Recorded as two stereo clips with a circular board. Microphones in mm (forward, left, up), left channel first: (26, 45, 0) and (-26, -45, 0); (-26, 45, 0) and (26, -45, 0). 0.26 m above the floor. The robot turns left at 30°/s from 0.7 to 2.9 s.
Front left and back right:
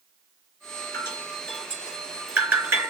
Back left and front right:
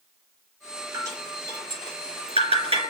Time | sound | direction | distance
0.9 | dripping | 5° right | 4.5 m